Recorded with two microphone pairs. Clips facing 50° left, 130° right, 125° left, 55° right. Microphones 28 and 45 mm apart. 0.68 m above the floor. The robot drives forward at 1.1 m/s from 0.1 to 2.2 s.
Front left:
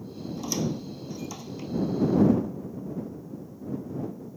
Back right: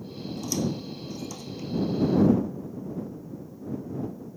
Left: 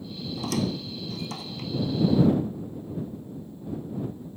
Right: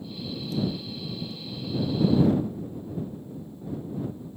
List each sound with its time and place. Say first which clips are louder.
0.4 s a squeak: back right 1 dB, left 2 dB; 120° left; by 1.7 s 125° left